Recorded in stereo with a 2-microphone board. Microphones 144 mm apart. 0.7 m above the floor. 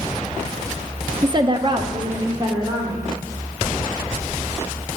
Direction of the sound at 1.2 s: 30° right (ahead or behind).